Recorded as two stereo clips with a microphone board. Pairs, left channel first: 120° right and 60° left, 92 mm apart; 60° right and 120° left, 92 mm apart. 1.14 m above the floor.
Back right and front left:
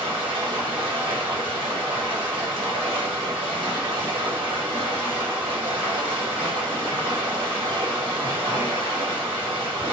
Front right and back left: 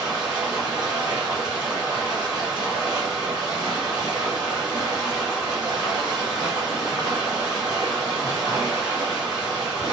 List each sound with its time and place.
0.0 s running water: 80° left, 1.2 m